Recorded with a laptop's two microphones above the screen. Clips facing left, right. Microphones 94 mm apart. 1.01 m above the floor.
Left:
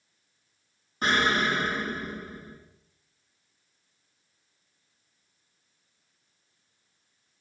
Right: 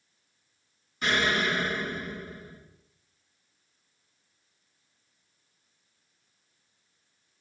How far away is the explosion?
About 2.5 m.